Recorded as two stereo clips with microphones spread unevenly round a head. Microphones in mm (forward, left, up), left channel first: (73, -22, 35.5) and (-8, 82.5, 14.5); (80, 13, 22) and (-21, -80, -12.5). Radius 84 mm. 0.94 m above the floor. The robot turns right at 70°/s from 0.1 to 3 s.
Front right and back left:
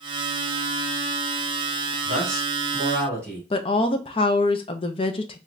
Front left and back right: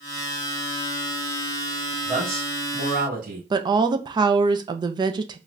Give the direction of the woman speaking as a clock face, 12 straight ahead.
3 o'clock.